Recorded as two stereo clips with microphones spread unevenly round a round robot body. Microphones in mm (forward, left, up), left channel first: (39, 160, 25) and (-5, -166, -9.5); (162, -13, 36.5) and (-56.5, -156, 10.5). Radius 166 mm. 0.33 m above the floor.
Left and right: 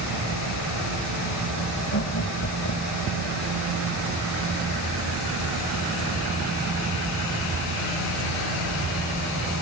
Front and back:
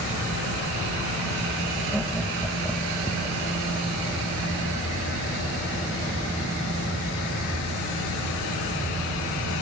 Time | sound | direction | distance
1.9 | laughter | 125° left | ?